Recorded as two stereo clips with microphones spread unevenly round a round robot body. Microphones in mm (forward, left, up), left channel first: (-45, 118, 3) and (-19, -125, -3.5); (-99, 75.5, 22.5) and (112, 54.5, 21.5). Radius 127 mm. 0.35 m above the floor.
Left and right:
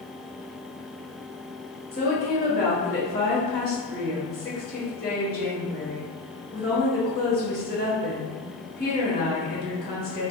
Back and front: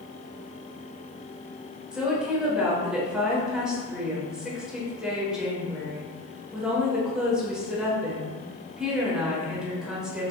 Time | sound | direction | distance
1.9 | a woman speaking | 80° left | 1.1 m